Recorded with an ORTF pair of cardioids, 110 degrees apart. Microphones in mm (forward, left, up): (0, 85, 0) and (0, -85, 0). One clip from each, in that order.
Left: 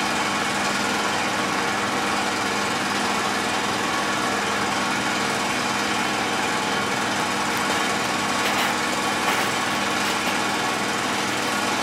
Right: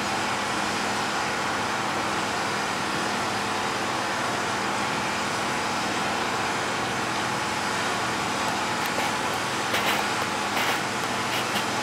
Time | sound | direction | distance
0.0 | an engine running | 60° left | 2 m